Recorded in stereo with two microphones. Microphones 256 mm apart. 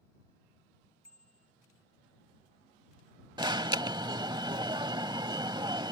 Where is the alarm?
15° right (ahead or behind).